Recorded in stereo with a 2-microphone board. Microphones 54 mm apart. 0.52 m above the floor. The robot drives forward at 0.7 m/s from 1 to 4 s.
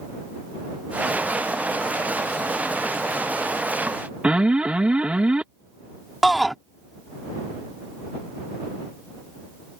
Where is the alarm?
20° right (ahead or behind).